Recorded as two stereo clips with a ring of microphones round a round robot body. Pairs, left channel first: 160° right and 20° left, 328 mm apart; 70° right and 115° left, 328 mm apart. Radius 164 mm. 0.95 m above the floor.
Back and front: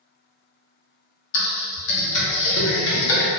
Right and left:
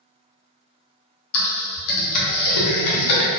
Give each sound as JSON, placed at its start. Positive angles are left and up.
{"t": 1.3, "sound": "typing on a keyboard", "azimuth_deg": -105, "distance_m": 0.6}